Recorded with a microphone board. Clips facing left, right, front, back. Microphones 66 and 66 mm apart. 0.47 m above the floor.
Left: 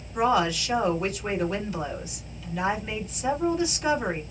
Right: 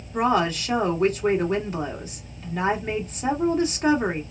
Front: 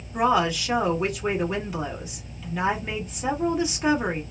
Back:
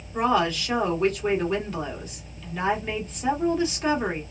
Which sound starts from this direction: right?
A woman speaking, at 0.1 s.